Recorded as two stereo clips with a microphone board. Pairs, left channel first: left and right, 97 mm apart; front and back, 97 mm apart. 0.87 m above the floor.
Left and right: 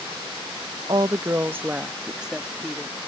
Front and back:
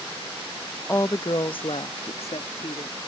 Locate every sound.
0.9 s a woman speaking: 60° right; by 3.0 s straight ahead